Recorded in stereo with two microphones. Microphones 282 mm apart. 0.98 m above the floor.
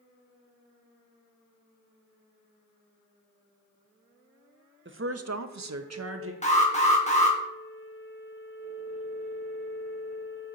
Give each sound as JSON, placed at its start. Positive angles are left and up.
{"t": 4.8, "sound": "a woman speaking", "side_deg": -40, "distance_m": 0.6}
{"t": 6.4, "sound": "an alarm", "side_deg": 25, "distance_m": 1.2}